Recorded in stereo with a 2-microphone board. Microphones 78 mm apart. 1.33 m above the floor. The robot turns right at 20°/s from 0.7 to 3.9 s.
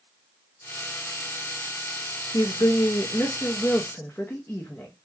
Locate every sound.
2.3 s a woman speaking: 125° left, 0.7 m; by 4.9 s 155° left, 0.7 m